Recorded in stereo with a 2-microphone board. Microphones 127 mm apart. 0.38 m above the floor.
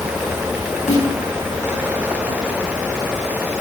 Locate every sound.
0.9 s a snare drum: 65° left (ahead or behind), 3.5 m